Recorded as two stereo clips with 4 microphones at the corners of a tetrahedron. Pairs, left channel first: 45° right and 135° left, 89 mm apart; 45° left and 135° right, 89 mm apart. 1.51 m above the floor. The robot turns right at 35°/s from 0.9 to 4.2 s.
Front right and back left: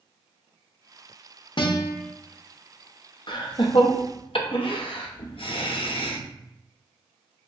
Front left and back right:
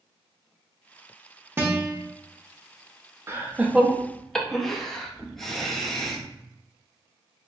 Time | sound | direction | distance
1.6 | a guitar | 70° right | 0.7 m
3.3 | laughter | 75° right | 0.6 m